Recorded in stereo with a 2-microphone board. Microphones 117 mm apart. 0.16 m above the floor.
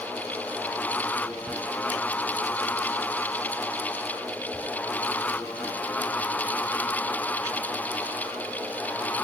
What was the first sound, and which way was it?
Only background noise.